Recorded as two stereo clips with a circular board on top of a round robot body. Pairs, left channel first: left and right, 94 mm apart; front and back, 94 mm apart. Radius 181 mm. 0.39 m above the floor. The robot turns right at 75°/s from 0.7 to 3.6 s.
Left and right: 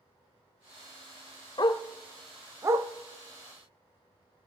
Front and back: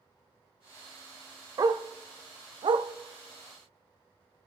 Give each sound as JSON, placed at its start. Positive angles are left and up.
{"t": 1.6, "sound": "a dog barking", "azimuth_deg": 130, "distance_m": 0.6}